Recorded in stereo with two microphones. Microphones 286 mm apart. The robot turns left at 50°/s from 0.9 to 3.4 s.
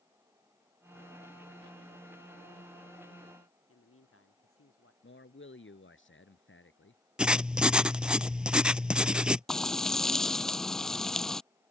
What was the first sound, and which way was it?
A man speaking, 50° left (ahead or behind).